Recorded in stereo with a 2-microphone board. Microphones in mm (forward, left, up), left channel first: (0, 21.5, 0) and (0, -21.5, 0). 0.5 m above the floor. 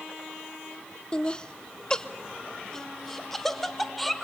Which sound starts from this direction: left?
Laughter, at 1.1 s.